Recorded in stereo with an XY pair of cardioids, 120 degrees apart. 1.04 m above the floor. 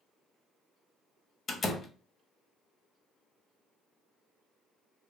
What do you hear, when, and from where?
1.5 s a door slam: 30° left, 0.7 m